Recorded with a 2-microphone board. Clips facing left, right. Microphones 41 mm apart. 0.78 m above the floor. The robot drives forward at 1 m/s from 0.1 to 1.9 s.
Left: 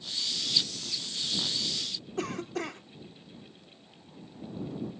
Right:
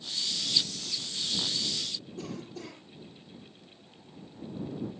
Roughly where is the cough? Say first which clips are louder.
Left 10 dB; left.